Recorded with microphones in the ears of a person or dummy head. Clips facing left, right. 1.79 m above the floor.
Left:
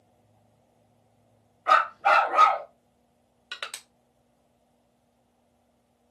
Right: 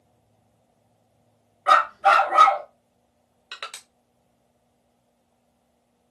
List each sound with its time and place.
1.7 s a dog barking: 60° right (ahead or behind), 2.5 m
3.5 s crushing: 5° left (ahead or behind), 0.8 m